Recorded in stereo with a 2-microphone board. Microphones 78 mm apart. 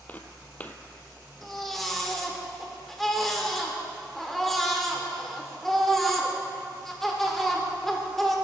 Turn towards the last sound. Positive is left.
turn(degrees=5)  # may be behind; listen again after turning